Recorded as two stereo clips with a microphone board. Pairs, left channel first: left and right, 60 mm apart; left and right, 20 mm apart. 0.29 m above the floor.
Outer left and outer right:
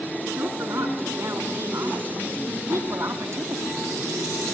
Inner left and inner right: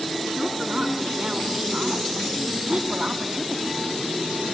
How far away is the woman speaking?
About 4.5 m.